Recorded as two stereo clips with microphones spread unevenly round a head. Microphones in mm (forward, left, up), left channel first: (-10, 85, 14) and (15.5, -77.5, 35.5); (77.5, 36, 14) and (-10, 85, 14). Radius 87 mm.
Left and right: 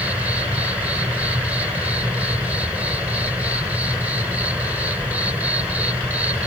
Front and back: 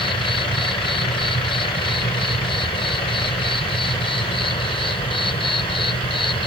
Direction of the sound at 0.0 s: Straight ahead.